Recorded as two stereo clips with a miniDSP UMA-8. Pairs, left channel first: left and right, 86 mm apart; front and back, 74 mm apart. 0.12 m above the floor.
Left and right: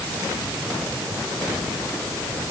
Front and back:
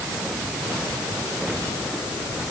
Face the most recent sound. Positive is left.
No sound to turn to.